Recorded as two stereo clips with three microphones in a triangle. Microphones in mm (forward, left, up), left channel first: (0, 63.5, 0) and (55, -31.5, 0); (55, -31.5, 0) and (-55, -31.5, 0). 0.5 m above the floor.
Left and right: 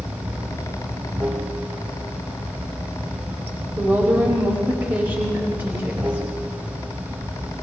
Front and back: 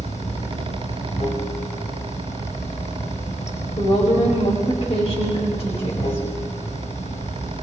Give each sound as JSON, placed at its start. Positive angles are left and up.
{"t": 0.0, "sound": "running water", "azimuth_deg": 10, "distance_m": 3.5}
{"t": 3.8, "sound": "a woman speaking", "azimuth_deg": 10, "distance_m": 2.5}